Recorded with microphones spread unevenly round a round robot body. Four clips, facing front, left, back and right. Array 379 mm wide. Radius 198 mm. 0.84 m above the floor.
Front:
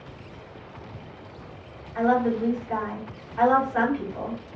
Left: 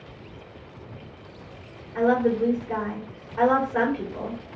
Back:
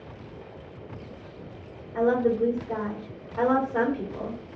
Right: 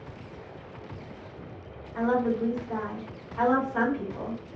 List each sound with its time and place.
1.9 s a woman speaking: 160° left, 2.5 m